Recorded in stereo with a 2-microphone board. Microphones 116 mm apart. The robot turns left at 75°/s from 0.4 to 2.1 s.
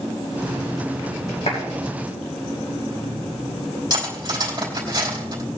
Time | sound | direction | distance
1.5 | a clap | 75° left (ahead or behind) | 5.5 m
3.9 | cutlery clinking | 35° right (ahead or behind) | 3.5 m